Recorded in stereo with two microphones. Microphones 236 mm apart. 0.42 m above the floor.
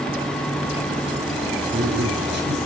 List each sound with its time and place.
1.7 s a man speaking: 45° right (ahead or behind), 7.5 m